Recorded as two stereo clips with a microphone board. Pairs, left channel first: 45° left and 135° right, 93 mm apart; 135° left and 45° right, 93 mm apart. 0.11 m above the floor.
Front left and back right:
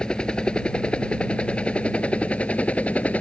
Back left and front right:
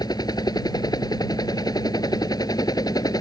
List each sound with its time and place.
0.0 s a helicopter: 125° left; by 3.2 s 115° left